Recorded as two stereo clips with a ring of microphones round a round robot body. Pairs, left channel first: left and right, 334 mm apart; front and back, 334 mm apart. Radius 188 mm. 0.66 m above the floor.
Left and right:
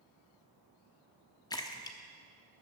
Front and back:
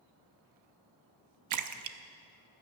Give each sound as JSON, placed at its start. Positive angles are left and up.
{"t": 1.5, "sound": "a splash", "azimuth_deg": 165, "distance_m": 0.9}